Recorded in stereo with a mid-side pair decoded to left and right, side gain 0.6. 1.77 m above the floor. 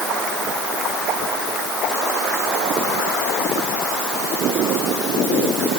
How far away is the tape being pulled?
I don't hear tape being pulled.